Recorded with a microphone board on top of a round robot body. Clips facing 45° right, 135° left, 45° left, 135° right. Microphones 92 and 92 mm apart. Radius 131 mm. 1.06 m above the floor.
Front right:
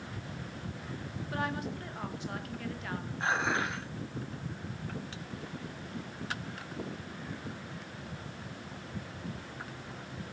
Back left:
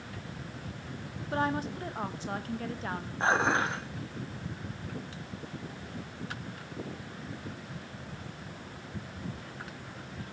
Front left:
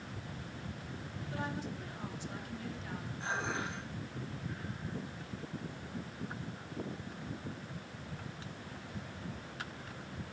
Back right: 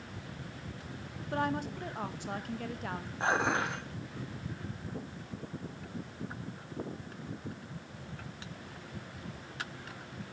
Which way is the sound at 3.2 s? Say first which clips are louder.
Back left 5 dB, back right 8 dB; 170° right.